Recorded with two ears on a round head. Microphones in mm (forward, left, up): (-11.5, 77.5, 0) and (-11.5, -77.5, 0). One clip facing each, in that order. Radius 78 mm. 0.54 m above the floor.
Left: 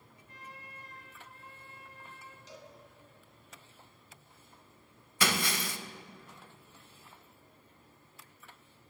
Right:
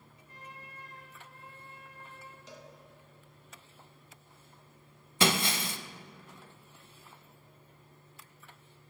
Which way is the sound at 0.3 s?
85° right.